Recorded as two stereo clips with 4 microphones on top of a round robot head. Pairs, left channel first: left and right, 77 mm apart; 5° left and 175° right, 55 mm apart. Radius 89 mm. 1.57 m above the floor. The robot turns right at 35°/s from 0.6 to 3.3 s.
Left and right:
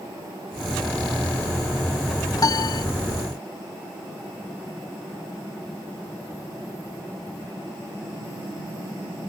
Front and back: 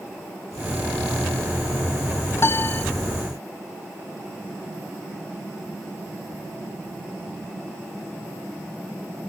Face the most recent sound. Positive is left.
turn(degrees=80)